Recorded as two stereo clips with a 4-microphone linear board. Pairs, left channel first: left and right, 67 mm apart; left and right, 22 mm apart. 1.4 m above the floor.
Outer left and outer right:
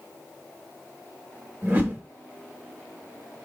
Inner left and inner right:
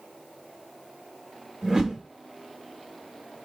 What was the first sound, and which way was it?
A whoosh, 30° right (ahead or behind).